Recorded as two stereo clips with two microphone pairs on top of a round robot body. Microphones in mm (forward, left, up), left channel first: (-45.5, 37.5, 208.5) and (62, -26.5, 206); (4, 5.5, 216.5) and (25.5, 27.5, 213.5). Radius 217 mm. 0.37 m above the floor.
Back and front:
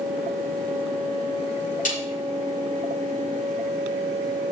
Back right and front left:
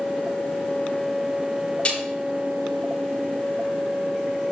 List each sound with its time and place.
1.9 s a snare drum: 170° left, 5.5 m